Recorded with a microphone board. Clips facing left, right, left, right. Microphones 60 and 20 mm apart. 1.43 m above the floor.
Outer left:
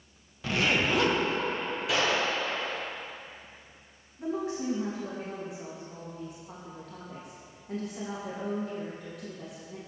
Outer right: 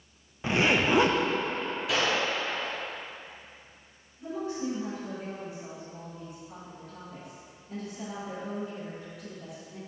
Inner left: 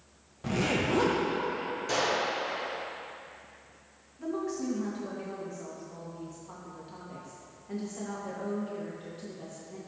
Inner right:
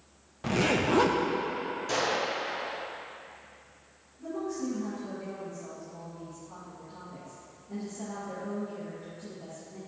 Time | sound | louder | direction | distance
0.4 | a zipper | outer right 2 dB, inner right 2 dB | 25° right (ahead or behind) | 0.5 m
1.9 | a gunshot | outer left 1 dB, inner left 1 dB | centre (ahead or behind) | 1.5 m
4.2 | a woman speaking | outer left 1 dB, inner left 1 dB | 75° left (ahead or behind) | 1.7 m